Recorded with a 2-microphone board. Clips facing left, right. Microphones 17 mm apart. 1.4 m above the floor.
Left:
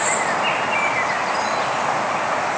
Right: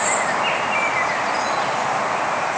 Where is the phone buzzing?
I don't hear a phone buzzing.